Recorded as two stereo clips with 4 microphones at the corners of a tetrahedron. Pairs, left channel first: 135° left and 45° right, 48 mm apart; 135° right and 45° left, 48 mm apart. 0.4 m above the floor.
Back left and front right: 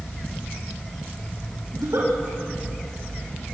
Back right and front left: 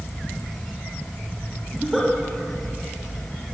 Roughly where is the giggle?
Ahead right.